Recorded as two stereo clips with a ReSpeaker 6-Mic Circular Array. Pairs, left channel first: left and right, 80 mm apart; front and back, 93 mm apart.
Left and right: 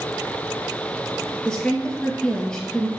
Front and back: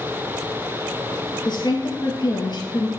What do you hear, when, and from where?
1.4 s a woman speaking: 10° left, 2 m